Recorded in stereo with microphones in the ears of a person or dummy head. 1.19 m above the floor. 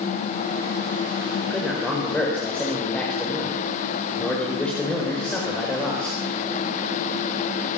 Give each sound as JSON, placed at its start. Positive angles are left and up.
{"t": 1.4, "sound": "a man speaking", "side_deg": 5, "distance_m": 4.5}